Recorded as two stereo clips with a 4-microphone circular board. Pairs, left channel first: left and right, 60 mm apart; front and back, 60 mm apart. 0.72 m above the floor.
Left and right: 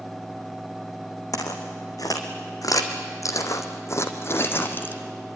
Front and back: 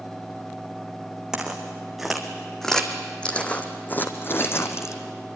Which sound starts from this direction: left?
Footsteps, at 1.3 s.